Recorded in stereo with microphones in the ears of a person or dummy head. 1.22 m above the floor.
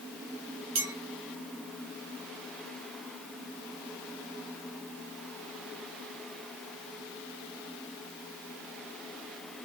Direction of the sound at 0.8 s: 70° right (ahead or behind).